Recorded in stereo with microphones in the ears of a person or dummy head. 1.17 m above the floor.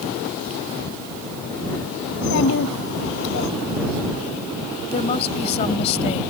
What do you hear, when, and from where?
2.1 s a child speaking: 65° left (ahead or behind); by 3.5 s 60° left (ahead or behind)
4.9 s a woman speaking: 35° left (ahead or behind)